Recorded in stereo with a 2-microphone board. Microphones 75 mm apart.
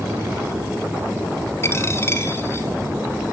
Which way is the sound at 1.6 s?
30° left (ahead or behind).